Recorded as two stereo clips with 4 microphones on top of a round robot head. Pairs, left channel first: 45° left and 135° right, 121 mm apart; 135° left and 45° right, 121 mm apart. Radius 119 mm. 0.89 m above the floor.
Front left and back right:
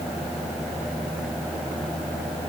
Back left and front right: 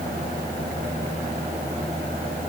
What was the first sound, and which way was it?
Only background noise.